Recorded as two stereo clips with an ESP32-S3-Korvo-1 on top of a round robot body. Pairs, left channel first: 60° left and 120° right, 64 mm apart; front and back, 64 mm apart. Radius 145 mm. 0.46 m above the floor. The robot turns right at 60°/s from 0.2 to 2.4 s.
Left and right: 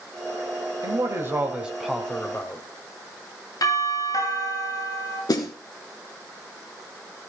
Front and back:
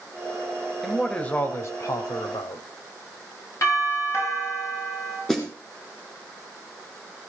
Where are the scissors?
I don't hear scissors.